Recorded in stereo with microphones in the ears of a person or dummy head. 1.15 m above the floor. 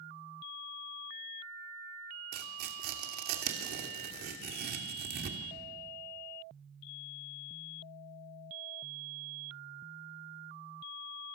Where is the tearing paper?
50° right (ahead or behind), 2.5 m.